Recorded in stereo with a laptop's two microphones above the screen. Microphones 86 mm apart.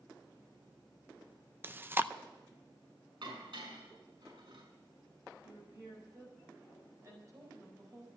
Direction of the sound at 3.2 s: 70° right (ahead or behind).